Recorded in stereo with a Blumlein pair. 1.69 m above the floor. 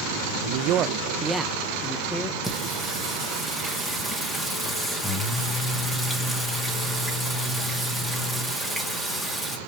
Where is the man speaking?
55° right, 0.5 m; by 2.3 s 15° left, 1.2 m.